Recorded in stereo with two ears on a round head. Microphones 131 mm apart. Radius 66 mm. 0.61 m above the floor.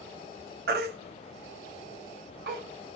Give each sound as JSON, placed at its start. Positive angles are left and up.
{"t": 0.7, "sound": "a baby crying", "side_deg": -75, "distance_m": 1.3}